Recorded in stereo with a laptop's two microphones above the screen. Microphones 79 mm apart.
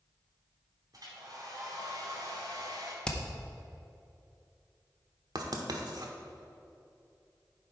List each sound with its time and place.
0.9 s a hair dryer: 55° right (ahead or behind), 2 m
3.0 s hammering: 10° left (ahead or behind), 0.7 m
5.3 s writing: 60° right (ahead or behind), 1.1 m